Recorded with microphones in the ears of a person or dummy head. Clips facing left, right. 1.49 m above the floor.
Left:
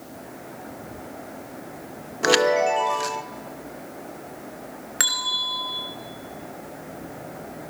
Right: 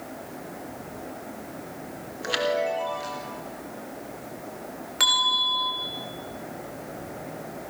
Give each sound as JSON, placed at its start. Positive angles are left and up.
{"t": 2.2, "sound": "a chime", "side_deg": 80, "distance_m": 1.0}
{"t": 5.0, "sound": "a bell", "side_deg": 25, "distance_m": 2.5}